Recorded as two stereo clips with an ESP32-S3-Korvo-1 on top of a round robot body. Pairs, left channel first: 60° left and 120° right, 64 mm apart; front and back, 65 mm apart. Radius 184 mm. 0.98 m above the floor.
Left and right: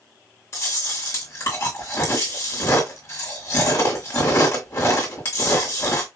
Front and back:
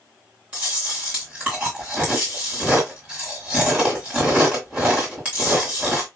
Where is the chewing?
110° left, 1.9 m.